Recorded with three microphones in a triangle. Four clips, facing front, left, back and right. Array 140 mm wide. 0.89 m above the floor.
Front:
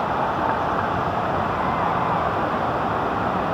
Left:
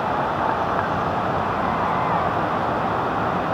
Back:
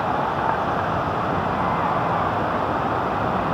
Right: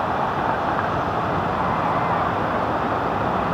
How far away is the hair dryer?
I don't hear a hair dryer.